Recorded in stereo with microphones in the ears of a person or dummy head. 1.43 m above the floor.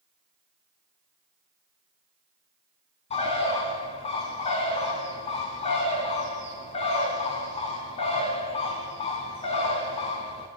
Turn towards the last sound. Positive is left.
turn(degrees=30)  # may be behind; listen again after turning